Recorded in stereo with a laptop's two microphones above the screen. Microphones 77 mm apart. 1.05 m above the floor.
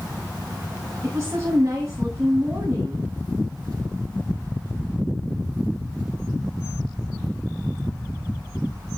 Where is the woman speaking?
35° right (ahead or behind), 9.5 m.